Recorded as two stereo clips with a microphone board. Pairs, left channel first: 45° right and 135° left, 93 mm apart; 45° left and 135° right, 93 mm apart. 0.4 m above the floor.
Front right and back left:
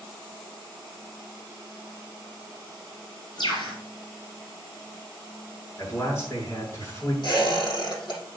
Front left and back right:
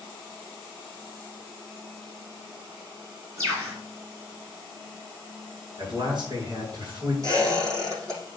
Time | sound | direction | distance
3.4 | a bird | 80° right | 4 m
5.8 | a man speaking | 105° right | 6 m
7.2 | a squeak | 80° right | 6.5 m